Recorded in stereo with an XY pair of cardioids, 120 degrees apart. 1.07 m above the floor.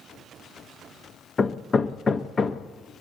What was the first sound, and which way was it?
Hammering, 30° left.